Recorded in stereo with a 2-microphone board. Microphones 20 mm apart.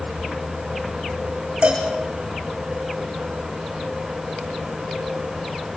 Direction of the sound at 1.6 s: 65° right (ahead or behind).